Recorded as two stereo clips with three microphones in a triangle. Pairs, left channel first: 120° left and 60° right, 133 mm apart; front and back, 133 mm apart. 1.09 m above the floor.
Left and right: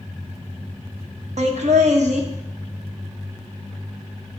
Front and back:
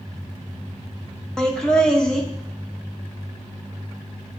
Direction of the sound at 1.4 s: 85° right.